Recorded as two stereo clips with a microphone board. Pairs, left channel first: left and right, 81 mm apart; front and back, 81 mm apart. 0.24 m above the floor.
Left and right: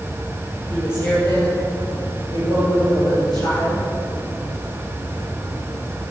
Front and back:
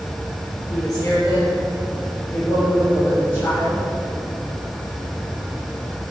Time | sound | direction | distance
0.7 | a woman speaking | 30° left | 2.5 m